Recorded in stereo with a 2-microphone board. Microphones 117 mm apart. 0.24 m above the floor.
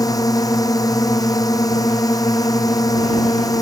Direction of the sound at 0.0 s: 30° left (ahead or behind).